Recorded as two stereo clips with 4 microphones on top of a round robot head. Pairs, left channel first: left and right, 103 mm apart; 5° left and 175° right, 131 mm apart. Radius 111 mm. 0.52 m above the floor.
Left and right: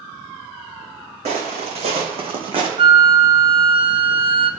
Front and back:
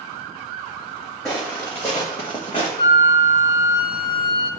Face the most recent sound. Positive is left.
turn(degrees=-55)